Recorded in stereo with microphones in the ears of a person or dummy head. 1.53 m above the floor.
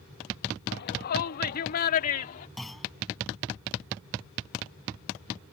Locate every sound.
0.7 s a shout: 55° left (ahead or behind); by 2.5 s 50° left (ahead or behind)
2.6 s a clunk: centre (ahead or behind)